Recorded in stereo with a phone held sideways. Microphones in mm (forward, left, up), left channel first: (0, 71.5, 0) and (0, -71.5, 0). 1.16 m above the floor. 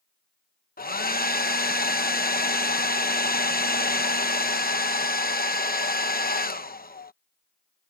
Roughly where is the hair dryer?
Left.